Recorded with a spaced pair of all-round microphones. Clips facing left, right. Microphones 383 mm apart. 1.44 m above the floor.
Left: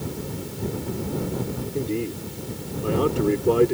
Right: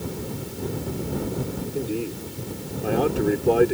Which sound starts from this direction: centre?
A man speaking, at 1.7 s.